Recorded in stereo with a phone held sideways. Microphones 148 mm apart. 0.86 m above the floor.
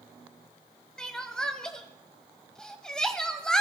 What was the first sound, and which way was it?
Crying, 5° left (ahead or behind).